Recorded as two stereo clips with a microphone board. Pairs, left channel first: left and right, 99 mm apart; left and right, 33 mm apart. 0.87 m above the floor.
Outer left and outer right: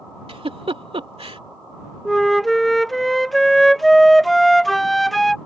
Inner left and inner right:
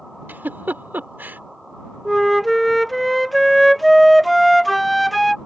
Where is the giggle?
75° right (ahead or behind).